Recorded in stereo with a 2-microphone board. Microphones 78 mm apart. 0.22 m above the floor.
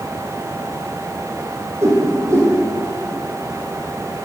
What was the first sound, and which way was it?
A whoosh, 40° right (ahead or behind).